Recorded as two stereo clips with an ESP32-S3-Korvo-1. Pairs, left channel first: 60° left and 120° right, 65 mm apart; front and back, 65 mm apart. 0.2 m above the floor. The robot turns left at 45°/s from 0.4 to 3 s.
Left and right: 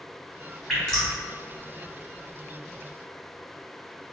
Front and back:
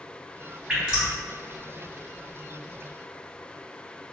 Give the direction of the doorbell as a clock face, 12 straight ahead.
I don't hear a doorbell.